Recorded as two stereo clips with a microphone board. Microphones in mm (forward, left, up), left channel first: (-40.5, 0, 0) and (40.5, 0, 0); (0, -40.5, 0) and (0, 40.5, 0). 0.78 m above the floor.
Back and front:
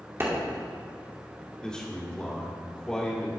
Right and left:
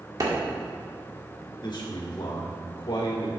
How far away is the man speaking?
About 2.0 m.